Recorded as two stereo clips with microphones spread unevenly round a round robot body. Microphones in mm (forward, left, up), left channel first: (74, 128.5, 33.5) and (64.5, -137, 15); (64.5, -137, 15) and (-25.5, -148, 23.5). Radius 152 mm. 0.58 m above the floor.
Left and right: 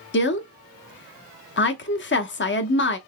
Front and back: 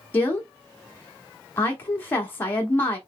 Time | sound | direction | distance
0.1 | a woman speaking | 60° left | 0.8 m